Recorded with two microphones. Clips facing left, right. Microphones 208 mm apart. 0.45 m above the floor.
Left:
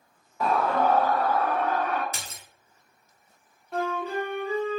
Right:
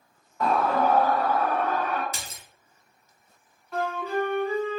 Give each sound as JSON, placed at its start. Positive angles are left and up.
{"t": 0.4, "sound": "a scream", "side_deg": 5, "distance_m": 0.8}
{"t": 2.1, "sound": "a splash", "side_deg": -25, "distance_m": 0.9}
{"t": 3.7, "sound": "a flute", "side_deg": 30, "distance_m": 1.0}